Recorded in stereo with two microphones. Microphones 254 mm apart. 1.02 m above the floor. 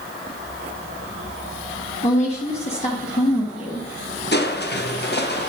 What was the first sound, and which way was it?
A woman speaking, 25° left (ahead or behind).